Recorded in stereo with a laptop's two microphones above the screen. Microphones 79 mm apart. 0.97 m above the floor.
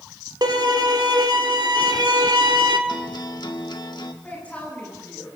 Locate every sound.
0.4 s a violin: 70° right (ahead or behind), 1.8 m
2.9 s a guitar: 70° left (ahead or behind), 1.5 m
4.2 s a woman speaking: 20° left (ahead or behind), 9.5 m